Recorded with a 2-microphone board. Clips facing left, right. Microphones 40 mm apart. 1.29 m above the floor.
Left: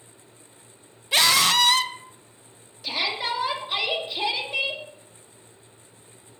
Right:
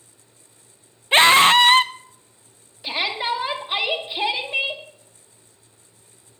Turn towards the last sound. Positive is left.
turn(degrees=-25)  # may be behind; listen again after turning